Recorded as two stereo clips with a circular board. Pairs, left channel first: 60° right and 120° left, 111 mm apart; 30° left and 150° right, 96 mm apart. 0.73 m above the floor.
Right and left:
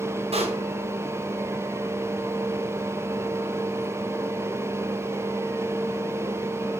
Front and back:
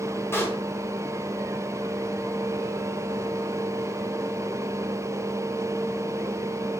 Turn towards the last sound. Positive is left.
turn(degrees=95)